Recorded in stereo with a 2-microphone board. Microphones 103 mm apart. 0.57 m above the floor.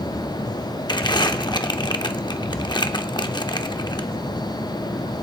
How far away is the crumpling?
About 0.6 m.